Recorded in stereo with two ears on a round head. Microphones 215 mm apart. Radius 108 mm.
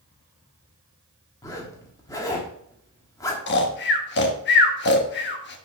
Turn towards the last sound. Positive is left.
turn(degrees=50)  # may be behind; listen again after turning